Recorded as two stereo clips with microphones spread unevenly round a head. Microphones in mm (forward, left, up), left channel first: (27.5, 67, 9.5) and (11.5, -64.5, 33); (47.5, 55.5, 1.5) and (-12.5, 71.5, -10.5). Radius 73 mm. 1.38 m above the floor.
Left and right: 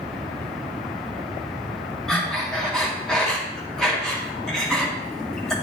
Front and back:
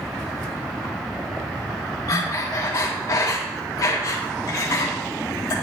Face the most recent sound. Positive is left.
turn(degrees=-10)